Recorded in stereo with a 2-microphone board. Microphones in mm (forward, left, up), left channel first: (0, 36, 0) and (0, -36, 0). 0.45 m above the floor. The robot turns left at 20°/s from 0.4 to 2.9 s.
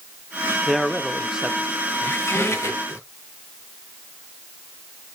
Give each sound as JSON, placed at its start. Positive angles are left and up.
{"t": 0.7, "sound": "a man speaking", "side_deg": 0, "distance_m": 0.8}
{"t": 2.0, "sound": "a squeak", "side_deg": 35, "distance_m": 1.9}